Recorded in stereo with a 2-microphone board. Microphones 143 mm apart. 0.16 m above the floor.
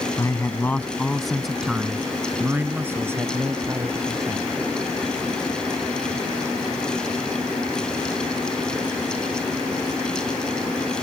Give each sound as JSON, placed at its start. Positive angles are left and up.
{"t": 0.2, "sound": "a man speaking", "side_deg": 25}